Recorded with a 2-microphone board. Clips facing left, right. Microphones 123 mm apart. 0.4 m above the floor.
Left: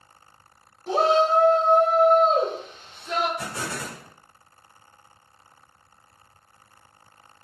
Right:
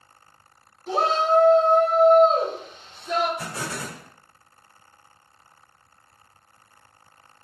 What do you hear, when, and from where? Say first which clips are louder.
0.9 s a shout: left 2 dB; 30° left (ahead or behind), 1.0 m; by 3.3 s 25° right (ahead or behind), 1.3 m
3.4 s an explosion: even; 15° right (ahead or behind), 1.4 m